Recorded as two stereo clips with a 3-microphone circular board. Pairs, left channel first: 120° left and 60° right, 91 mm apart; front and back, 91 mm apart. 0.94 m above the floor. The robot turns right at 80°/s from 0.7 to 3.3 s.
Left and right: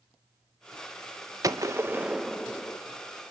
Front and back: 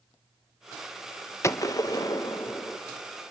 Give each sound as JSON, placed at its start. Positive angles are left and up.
{"t": 1.4, "sound": "a gunshot", "azimuth_deg": -40, "distance_m": 0.8}